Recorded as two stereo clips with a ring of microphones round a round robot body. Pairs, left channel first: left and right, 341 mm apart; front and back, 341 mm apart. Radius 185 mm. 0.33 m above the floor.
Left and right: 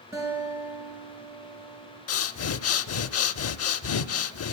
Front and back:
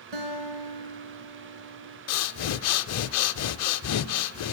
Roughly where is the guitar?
Behind.